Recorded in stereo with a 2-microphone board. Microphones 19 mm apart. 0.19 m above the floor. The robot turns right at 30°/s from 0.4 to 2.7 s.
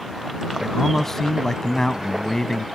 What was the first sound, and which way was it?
A man speaking, 15° left (ahead or behind).